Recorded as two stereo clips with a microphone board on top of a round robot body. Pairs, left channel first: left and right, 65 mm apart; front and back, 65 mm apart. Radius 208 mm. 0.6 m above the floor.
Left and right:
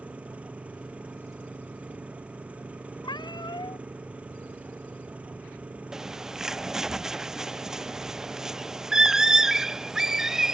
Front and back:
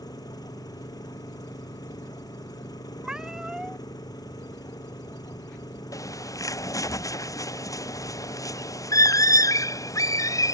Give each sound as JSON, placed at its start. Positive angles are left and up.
{"t": 0.0, "sound": "an engine running", "azimuth_deg": -20}
{"t": 3.0, "sound": "a cat meowing", "azimuth_deg": 100}
{"t": 5.9, "sound": "a bird", "azimuth_deg": -10}